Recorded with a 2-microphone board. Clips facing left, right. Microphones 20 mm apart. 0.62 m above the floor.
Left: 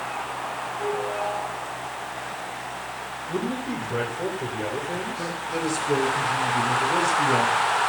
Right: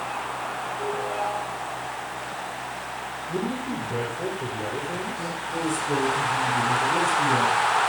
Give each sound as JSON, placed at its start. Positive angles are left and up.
{"t": 0.8, "sound": "a ringtone", "side_deg": -25, "distance_m": 4.5}
{"t": 3.3, "sound": "a man speaking", "side_deg": 15, "distance_m": 2.5}
{"t": 5.2, "sound": "a man speaking", "side_deg": 40, "distance_m": 5.0}